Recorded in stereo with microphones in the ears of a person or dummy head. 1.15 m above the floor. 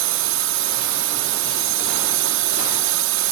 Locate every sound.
0.0 s a drone: 70° right (ahead or behind)